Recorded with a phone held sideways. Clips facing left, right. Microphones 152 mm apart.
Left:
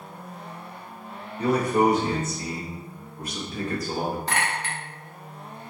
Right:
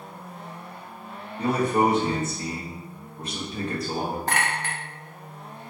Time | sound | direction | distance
1.4 | a man speaking | 25° right (ahead or behind) | 1.3 m
4.3 | a clink | 50° right (ahead or behind) | 0.8 m